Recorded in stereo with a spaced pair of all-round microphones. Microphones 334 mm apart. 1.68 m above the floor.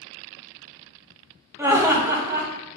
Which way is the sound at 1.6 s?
10° right (ahead or behind).